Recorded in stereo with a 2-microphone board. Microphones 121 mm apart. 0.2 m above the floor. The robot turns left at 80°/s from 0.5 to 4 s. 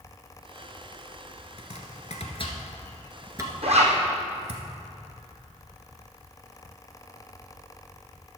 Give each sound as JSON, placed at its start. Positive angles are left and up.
{"t": 1.6, "sound": "chopping", "side_deg": 55, "distance_m": 1.4}
{"t": 3.6, "sound": "a zipper", "side_deg": -55, "distance_m": 2.5}